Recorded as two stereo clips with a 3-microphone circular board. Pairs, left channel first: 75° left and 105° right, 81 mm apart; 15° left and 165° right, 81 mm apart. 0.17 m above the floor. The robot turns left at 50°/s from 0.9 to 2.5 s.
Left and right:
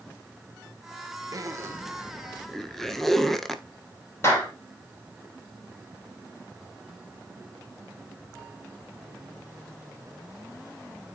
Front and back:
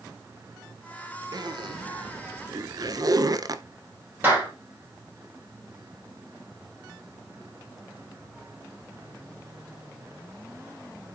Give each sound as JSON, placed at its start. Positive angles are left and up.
{"t": 1.3, "sound": "a zipper", "azimuth_deg": -140, "distance_m": 0.7}
{"t": 4.2, "sound": "a clap", "azimuth_deg": 130, "distance_m": 3.5}